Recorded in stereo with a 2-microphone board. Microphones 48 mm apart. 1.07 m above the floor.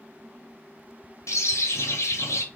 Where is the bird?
90° left, 0.6 m.